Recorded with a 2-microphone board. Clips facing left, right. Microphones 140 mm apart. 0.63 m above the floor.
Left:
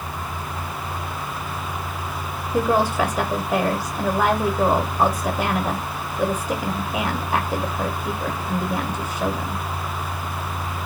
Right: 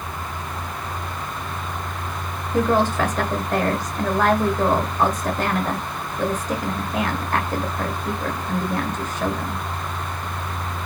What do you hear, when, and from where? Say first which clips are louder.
2.5 s a woman speaking: even; 10° left (ahead or behind), 0.7 m